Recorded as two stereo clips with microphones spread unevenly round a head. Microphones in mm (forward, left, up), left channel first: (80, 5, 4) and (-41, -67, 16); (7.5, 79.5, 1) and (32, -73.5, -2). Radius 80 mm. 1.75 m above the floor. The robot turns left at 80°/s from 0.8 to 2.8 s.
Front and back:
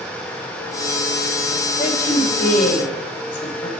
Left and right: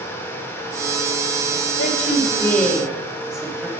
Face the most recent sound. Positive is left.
turn(degrees=5)